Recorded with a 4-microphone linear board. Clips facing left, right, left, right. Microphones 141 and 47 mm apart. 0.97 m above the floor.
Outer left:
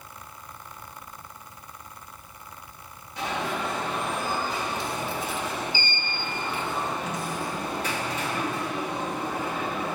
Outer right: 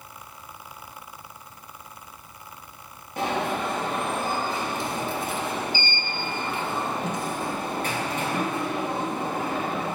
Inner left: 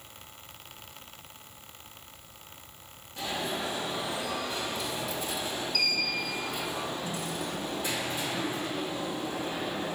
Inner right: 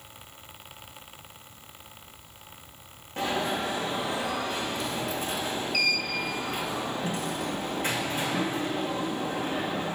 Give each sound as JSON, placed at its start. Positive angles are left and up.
{"t": 3.2, "sound": "an alarm", "side_deg": -50, "distance_m": 2.5}